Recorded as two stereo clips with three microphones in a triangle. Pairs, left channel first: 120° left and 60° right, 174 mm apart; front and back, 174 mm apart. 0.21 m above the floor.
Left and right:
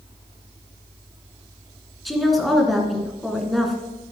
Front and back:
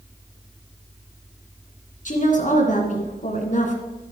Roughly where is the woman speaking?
Ahead left.